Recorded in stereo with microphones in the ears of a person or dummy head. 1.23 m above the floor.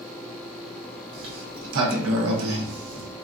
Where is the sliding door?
70° right (ahead or behind), 0.6 m.